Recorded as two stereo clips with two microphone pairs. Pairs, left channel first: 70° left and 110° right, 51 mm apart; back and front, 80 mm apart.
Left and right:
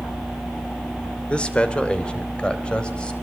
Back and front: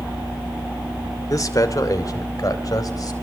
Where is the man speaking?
135° left, 2.5 m; by 3.1 s 140° left, 4 m.